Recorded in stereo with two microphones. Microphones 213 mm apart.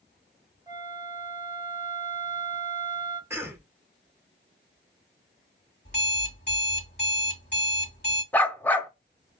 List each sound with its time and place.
0.7 s a flute: 20° right (ahead or behind), 0.6 m
3.3 s a cough: 10° right (ahead or behind), 0.8 m
5.8 s an alarm clock: 50° left (ahead or behind), 1.4 m
8.3 s a dog barking: 10° left (ahead or behind), 0.5 m